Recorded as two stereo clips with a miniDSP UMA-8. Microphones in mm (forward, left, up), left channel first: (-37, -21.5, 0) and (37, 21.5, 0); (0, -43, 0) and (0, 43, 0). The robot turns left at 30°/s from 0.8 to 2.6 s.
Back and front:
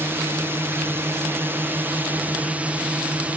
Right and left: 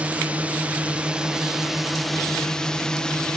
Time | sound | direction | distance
0.0 | a drone | 35° left | ?